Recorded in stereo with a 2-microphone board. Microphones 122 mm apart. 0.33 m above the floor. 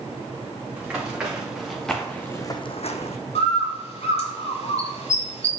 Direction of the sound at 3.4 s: 65° left (ahead or behind).